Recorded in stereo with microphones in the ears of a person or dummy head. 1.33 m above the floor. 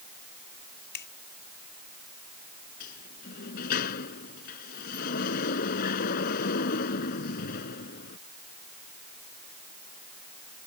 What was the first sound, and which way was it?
A finger snap, 55° left (ahead or behind).